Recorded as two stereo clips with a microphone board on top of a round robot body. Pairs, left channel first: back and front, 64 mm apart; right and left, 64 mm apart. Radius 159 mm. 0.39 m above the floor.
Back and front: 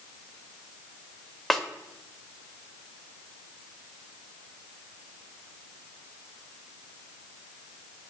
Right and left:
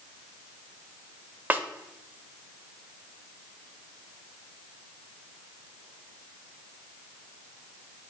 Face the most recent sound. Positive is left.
turn(degrees=95)